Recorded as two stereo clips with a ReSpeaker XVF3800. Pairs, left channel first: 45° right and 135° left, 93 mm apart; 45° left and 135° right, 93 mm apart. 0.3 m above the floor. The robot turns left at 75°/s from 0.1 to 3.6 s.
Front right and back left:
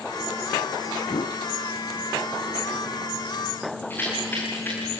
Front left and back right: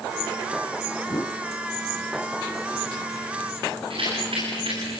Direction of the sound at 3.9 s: 115° right.